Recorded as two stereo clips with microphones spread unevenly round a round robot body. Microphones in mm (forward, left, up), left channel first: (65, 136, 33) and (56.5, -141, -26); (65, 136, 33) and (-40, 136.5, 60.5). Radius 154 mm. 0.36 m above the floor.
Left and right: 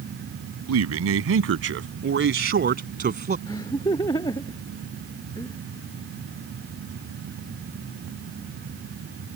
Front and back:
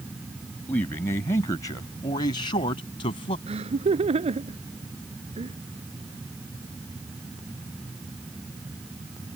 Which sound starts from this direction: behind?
Laughter, at 3.5 s.